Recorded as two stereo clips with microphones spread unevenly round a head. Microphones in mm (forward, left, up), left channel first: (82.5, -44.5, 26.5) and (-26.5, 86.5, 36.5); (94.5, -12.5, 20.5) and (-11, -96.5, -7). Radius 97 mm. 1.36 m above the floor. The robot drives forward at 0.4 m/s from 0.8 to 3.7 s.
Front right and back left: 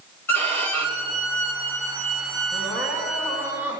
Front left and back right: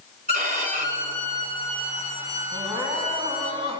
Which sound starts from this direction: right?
Crying, at 2.5 s.